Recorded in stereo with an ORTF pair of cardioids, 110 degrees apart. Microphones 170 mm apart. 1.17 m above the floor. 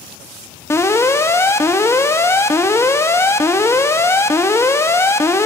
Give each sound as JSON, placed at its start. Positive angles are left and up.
{"t": 0.7, "sound": "an alarm", "azimuth_deg": 15, "distance_m": 1.0}